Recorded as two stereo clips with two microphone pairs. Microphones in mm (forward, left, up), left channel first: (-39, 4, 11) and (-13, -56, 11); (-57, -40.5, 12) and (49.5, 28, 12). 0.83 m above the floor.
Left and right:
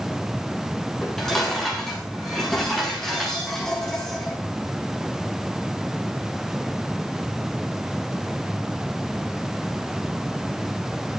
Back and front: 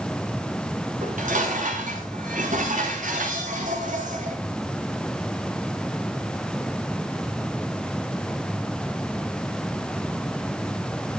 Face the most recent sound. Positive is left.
turn(degrees=30)